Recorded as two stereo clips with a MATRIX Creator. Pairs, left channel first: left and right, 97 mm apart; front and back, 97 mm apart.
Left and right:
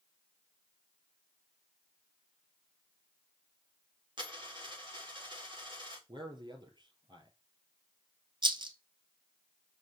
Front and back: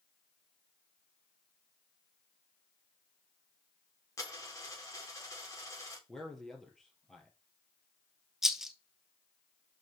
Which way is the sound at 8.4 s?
95° right.